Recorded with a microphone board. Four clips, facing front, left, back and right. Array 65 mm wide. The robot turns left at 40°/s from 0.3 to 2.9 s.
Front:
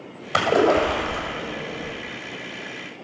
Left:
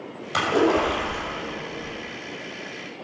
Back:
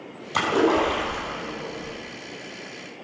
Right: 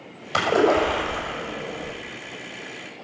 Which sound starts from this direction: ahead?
A splash, at 0.3 s.